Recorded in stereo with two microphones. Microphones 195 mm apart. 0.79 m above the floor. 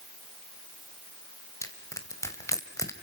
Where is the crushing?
15° left (ahead or behind), 2.5 m.